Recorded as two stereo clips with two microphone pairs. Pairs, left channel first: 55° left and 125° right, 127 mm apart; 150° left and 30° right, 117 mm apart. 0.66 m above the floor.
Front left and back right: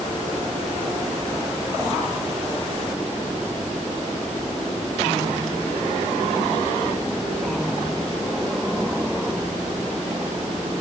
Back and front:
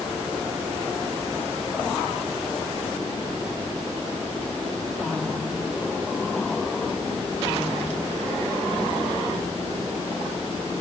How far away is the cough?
I don't hear a cough.